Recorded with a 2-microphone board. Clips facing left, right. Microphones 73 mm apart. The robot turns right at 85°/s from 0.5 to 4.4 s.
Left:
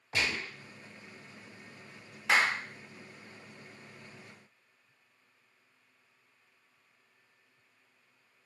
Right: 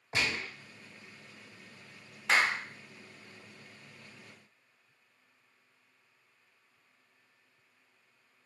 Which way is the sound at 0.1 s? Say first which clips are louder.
Even; 25° right (ahead or behind).